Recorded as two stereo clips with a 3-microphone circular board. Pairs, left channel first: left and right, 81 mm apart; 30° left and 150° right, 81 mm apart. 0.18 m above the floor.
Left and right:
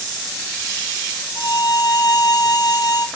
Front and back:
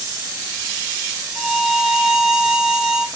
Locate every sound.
1.4 s a violin: 130° left, 0.9 m